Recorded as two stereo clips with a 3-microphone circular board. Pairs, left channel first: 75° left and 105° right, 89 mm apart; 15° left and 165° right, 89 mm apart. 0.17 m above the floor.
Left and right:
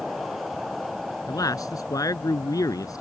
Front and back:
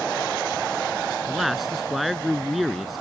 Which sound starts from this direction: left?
A man speaking, at 1.3 s.